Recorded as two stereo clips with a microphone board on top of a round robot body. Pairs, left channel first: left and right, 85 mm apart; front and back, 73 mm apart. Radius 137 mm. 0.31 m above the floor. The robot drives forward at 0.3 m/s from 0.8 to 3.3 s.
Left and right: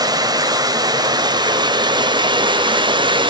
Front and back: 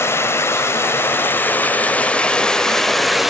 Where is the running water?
55° right, 1.3 m; by 3.3 s 90° right, 1.1 m.